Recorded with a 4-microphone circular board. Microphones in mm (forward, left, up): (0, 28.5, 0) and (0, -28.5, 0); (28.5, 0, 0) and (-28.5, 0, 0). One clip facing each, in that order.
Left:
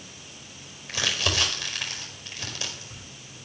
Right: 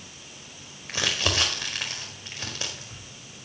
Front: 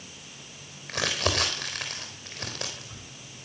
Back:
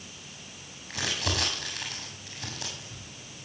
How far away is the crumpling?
About 4.5 m.